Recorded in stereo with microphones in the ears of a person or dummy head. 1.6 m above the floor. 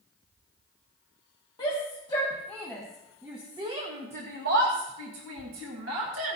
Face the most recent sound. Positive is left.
turn(degrees=-85)